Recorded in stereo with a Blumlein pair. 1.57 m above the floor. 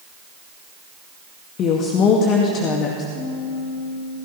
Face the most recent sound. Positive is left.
turn(degrees=35)